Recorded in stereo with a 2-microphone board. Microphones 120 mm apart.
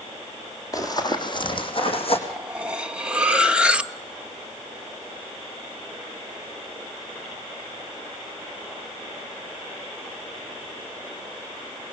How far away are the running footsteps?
About 3 m.